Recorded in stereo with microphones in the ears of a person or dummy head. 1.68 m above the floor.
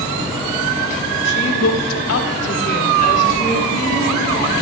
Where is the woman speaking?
60° left (ahead or behind), 1.2 m; by 4.5 s 30° left (ahead or behind), 3 m.